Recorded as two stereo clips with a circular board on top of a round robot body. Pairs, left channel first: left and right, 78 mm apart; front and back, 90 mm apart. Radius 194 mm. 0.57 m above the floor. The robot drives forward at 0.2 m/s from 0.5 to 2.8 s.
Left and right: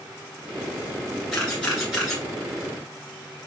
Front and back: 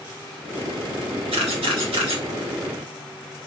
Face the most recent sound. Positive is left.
turn(degrees=180)